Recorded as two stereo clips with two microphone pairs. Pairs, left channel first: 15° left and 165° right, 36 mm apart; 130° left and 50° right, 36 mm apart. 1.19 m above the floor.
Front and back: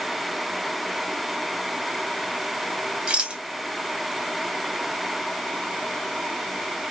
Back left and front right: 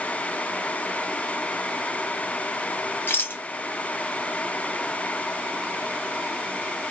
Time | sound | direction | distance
3.1 | a rattle | 130° left | 1.4 m